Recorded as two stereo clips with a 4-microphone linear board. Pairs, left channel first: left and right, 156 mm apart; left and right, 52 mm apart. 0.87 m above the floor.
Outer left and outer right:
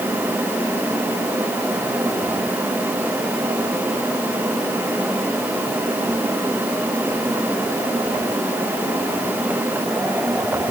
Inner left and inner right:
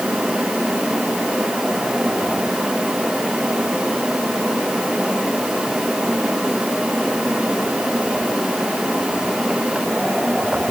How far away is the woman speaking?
I don't hear a woman speaking.